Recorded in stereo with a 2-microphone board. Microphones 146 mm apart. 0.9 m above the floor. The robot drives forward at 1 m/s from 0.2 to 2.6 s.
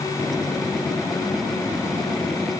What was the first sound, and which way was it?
Only background noise.